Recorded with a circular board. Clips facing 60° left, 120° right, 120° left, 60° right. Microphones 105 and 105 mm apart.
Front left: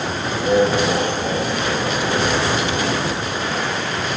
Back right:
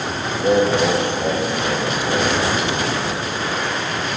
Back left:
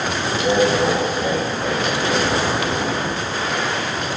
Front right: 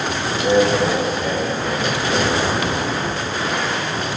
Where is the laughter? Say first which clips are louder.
Back right 1 dB, front right 1 dB; 155° right, 6 m; by 2.4 s 175° right, 7 m.